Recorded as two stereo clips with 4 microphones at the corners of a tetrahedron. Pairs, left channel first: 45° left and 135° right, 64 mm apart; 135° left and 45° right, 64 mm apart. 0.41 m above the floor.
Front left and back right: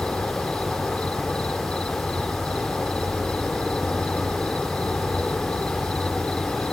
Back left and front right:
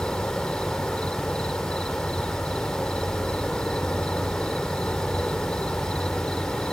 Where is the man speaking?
No man speaking in this recording.